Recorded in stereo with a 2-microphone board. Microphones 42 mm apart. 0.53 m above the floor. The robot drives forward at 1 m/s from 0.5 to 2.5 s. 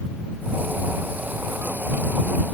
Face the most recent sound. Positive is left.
No sound to turn to.